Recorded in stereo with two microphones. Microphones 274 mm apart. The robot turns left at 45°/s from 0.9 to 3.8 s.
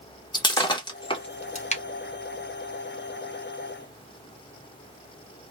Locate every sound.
0.3 s breaking glass: 15° left (ahead or behind), 0.7 m; by 1.8 s 25° left (ahead or behind), 0.7 m